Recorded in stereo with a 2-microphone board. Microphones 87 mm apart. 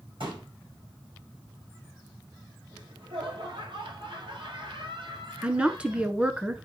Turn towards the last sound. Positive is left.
turn(degrees=-15)  # may be behind; listen again after turning